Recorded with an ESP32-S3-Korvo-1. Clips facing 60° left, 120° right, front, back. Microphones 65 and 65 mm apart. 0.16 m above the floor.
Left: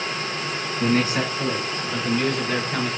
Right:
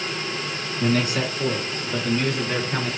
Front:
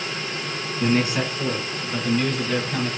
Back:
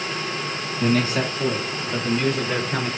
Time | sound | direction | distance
0.8 | a man speaking | 35° left | 1.6 m